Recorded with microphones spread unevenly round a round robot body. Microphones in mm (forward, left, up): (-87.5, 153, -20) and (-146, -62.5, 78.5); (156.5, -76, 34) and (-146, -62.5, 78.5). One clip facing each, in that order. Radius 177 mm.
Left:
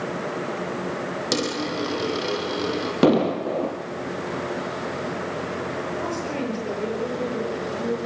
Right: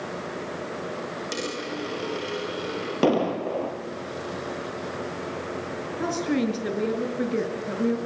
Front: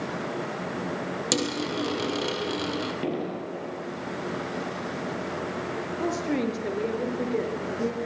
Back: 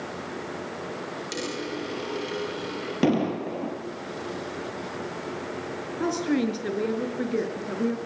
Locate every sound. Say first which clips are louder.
1.3 s a dropped coin: left 7 dB, front 4 dB; 25° left, 4 m
3.0 s an explosion: left 4 dB, back 6 dB; 140° left, 4 m
6.0 s a woman speaking: right 8 dB, back 3 dB; 115° right, 6 m